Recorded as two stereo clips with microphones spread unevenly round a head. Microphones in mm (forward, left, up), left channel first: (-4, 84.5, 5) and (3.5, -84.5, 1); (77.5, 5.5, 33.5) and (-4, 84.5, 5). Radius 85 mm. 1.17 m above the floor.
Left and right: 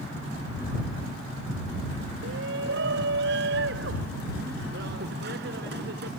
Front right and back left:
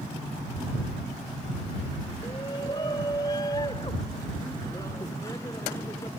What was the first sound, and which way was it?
A shout, 110° right.